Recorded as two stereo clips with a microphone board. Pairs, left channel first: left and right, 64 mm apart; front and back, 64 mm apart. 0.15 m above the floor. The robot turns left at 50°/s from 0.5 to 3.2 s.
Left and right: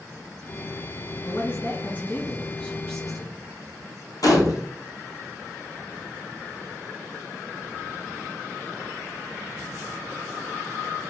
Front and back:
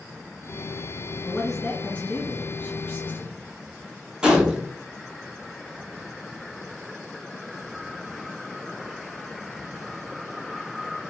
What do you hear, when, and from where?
1.2 s a man speaking: 95° left, 1.5 m; by 3.3 s straight ahead, 1.5 m
4.2 s a gunshot: 105° left, 0.7 m